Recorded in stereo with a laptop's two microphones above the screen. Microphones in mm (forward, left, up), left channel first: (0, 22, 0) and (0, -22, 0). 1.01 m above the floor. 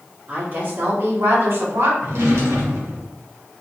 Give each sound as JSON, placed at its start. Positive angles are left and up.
{"t": 0.3, "sound": "a woman speaking", "side_deg": -45, "distance_m": 1.9}
{"t": 2.0, "sound": "a drawer", "side_deg": -85, "distance_m": 1.6}